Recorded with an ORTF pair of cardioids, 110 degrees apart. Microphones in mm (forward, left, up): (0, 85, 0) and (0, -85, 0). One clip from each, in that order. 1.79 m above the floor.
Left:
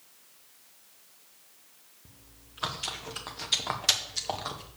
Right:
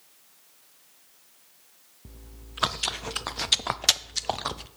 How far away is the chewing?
About 0.6 m.